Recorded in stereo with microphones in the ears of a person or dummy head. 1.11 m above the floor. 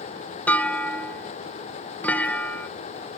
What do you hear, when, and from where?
0.5 s a clunk: 5° left (ahead or behind), 0.5 m